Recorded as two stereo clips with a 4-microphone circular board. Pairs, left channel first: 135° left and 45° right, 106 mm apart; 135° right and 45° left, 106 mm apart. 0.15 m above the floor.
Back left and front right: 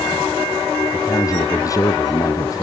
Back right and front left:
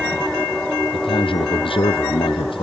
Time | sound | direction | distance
0.9 | a man speaking | 170° right | ?